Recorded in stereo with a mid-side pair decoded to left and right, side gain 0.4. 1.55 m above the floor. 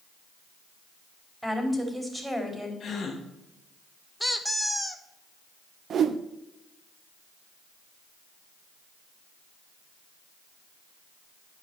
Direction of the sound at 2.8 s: 60° left.